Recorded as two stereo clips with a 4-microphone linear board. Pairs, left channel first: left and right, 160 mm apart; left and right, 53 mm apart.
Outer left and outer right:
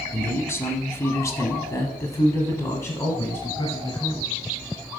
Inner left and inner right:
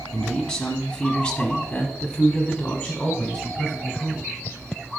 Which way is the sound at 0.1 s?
15° left (ahead or behind).